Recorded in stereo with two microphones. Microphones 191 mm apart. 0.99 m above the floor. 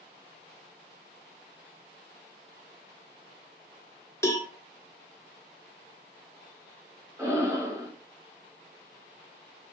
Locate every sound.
4.2 s a cowbell: 15° left (ahead or behind), 0.6 m
7.2 s breathing: 15° right (ahead or behind), 0.9 m